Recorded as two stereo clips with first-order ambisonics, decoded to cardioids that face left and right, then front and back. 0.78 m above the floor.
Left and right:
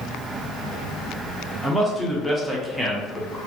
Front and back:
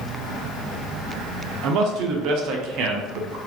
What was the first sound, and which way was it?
A man speaking, 175° right.